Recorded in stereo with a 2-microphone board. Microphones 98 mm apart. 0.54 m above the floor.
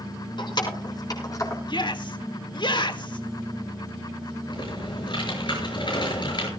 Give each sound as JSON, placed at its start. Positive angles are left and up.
{"t": 0.4, "sound": "keys jangling", "side_deg": 50, "distance_m": 4.5}
{"t": 1.7, "sound": "a shout", "side_deg": 50, "distance_m": 1.7}
{"t": 4.5, "sound": "typing on a keyboard", "side_deg": 50, "distance_m": 6.5}